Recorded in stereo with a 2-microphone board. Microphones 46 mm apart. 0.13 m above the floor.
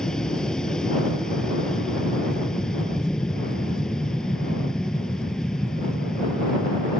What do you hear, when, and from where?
0.0 s an aircraft: 15° left (ahead or behind)